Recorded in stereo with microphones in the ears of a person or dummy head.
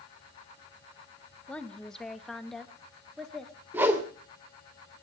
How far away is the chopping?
No chopping in this recording.